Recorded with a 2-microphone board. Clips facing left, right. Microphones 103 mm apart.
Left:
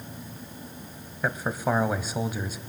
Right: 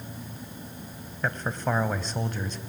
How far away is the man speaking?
About 1.3 m.